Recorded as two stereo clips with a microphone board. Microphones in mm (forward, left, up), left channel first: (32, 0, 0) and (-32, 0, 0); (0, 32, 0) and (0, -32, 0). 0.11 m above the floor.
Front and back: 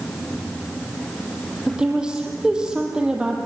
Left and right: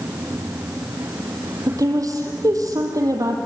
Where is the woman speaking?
105° right, 4 m.